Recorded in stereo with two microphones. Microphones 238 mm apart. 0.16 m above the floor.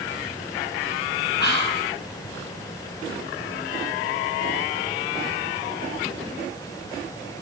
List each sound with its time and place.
1.4 s whispering: 45° left (ahead or behind), 2.5 m